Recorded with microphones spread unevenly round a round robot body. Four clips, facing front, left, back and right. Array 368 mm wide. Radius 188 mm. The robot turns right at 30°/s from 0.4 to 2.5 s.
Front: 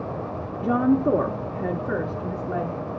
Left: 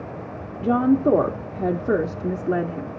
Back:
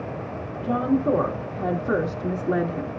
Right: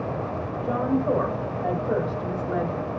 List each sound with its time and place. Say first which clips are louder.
0.6 s a woman speaking: left 6 dB, front 2 dB; 60° left, 1.1 m; by 3.0 s 120° left, 1.1 m